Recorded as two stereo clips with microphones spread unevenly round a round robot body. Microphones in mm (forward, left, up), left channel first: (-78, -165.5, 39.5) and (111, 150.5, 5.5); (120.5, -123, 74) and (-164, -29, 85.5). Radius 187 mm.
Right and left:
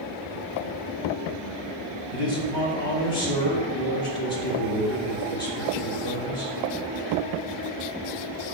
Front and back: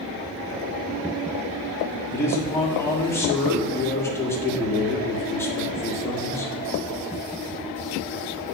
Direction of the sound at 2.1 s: 100° right.